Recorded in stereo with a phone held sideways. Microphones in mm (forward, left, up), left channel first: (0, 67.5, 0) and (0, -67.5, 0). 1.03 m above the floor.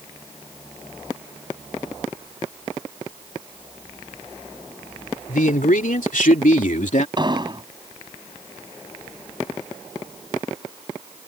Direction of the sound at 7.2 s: 35° right (ahead or behind).